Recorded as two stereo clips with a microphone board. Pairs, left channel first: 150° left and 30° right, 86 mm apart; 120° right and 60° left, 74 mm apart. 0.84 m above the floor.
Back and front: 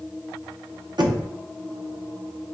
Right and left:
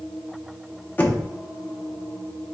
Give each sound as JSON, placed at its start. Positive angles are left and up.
{"t": 1.0, "sound": "knocking", "azimuth_deg": -60, "distance_m": 0.7}